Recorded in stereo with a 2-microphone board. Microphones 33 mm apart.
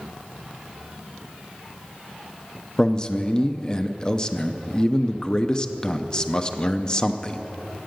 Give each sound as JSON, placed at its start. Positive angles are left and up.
{"t": 2.8, "sound": "a man speaking", "side_deg": 25, "distance_m": 0.5}